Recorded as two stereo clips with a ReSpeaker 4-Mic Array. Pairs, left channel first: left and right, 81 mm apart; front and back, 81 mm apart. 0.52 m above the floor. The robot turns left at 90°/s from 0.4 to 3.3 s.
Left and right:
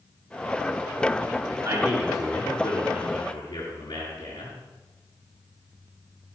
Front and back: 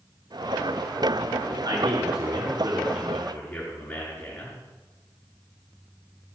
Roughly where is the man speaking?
Behind right.